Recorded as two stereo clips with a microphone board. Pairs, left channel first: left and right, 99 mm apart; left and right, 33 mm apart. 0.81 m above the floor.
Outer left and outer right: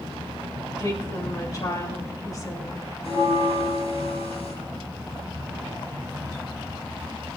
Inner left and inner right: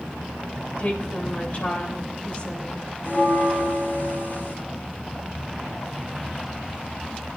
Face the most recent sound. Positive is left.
turn(degrees=80)